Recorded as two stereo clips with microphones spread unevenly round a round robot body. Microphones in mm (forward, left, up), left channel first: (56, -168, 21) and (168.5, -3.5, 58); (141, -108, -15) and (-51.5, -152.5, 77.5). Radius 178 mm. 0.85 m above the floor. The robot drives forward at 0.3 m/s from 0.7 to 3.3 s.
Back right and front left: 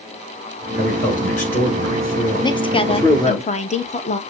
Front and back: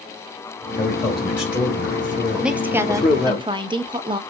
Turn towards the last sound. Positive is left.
turn(degrees=-85)